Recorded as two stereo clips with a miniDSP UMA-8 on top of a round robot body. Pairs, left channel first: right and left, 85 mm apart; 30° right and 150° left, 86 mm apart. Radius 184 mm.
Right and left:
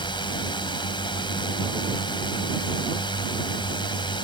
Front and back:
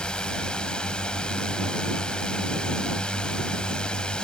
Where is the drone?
110° right.